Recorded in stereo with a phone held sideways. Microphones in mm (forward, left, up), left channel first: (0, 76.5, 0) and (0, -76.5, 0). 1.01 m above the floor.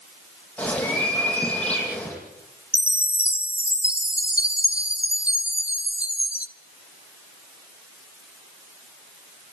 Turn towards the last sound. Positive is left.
turn(degrees=-10)  # may be behind; listen again after turning